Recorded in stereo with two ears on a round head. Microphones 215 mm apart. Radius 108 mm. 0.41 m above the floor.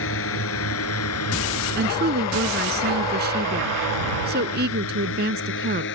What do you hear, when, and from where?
0.0 s a drone: 60° left (ahead or behind); by 6.0 s 50° left (ahead or behind)
1.8 s a woman speaking: 40° right (ahead or behind)